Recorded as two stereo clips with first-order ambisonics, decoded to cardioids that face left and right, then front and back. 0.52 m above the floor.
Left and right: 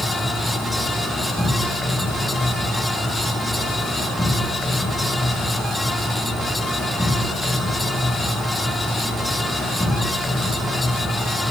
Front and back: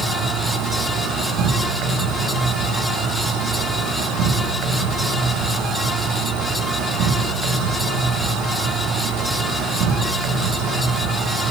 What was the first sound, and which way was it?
An insect, 170° left.